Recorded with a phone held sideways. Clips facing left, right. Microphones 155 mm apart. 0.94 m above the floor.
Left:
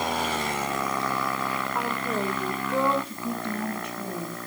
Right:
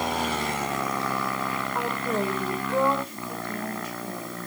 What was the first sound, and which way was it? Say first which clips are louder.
A woman speaking: right 3 dB; centre (ahead or behind).